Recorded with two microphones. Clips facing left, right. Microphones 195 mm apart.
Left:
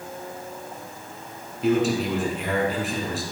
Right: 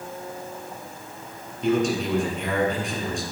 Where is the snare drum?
No snare drum in this recording.